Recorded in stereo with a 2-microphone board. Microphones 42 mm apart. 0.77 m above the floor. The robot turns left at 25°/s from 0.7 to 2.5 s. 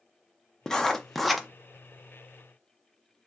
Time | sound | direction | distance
0.7 | writing | 15° left (ahead or behind) | 0.5 m